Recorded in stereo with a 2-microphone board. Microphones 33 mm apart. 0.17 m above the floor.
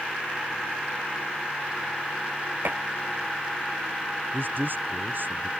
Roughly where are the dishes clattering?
Right.